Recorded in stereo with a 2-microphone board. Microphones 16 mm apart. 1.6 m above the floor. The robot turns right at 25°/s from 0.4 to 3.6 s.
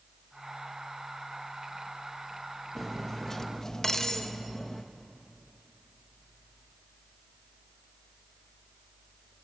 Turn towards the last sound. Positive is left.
turn(degrees=35)  # may be behind; listen again after turning